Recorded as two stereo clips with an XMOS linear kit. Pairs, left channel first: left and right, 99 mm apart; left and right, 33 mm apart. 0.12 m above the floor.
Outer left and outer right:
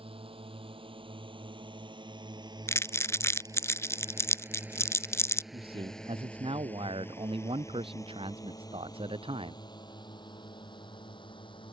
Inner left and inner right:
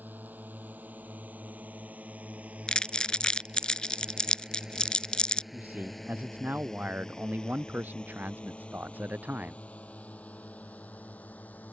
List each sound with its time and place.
0.0 s a drone: 65° right (ahead or behind); by 11.7 s 55° left (ahead or behind)
2.7 s crumpling: 25° left (ahead or behind)
5.5 s a man speaking: 60° right (ahead or behind)